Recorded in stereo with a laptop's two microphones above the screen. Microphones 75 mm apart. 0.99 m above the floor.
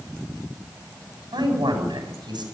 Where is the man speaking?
85° right, 8 m.